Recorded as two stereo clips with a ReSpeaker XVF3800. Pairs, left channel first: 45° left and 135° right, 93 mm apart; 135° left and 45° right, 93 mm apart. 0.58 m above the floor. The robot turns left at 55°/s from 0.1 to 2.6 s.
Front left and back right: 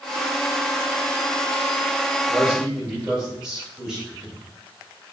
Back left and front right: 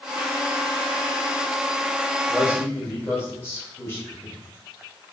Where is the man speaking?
170° left, 1.2 m; by 4.4 s 155° left, 1.2 m.